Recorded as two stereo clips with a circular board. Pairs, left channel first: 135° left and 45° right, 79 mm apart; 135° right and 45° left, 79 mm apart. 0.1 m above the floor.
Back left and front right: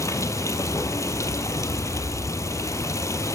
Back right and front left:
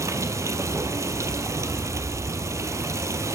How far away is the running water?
About 1.0 m.